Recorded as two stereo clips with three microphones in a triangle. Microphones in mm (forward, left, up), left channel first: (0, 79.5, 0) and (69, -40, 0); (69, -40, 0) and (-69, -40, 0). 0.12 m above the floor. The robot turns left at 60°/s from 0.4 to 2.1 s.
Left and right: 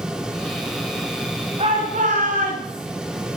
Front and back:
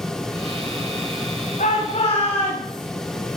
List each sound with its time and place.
1.6 s a shout: 20° right, 9 m; by 2.8 s 50° right, 9 m